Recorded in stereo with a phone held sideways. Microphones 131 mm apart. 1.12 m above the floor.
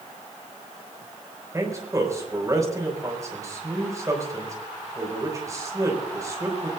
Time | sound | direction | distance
1.5 | a man speaking | 25° right (ahead or behind) | 5 m